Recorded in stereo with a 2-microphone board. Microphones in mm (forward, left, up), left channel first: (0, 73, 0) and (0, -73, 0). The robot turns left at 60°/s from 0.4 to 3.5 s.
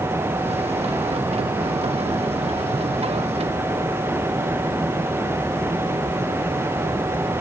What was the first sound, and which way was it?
Only background noise.